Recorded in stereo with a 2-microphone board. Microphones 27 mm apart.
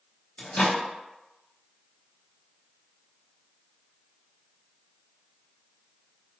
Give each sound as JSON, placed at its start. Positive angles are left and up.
{"t": 0.4, "sound": "a microwave", "side_deg": 55, "distance_m": 0.6}